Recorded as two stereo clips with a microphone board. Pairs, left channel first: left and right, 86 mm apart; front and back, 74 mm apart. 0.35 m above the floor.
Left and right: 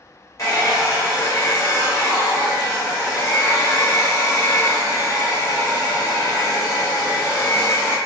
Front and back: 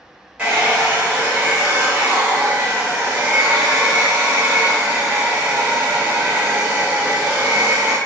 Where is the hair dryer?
115° left, 1.5 m.